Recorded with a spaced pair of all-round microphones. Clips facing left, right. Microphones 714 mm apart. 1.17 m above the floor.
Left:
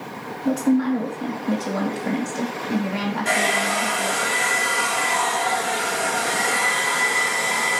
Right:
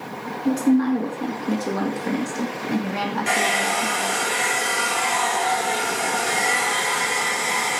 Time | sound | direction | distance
0.5 | a woman speaking | 15° left (ahead or behind) | 2.5 m
3.2 | a hair dryer | 70° left (ahead or behind) | 6 m